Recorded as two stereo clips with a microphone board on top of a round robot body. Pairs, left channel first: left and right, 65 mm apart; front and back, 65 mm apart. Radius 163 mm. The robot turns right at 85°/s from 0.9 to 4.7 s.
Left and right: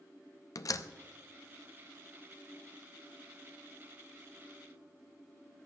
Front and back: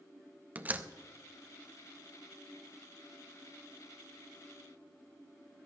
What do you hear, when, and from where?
0.6 s a door slam: 115° left, 0.7 m